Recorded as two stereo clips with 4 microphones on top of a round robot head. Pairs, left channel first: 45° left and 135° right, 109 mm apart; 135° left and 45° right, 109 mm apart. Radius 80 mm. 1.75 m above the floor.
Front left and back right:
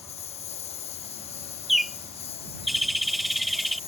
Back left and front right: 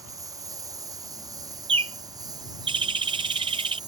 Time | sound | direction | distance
0.0 | a lawn mower | 15° left | ?
1.7 | a bird | 45° right | ?